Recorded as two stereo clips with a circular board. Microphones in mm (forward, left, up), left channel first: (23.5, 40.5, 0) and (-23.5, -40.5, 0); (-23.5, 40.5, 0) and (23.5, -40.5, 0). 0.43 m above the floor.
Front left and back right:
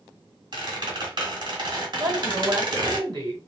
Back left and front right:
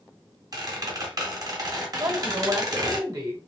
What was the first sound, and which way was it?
A squeak, 100° right.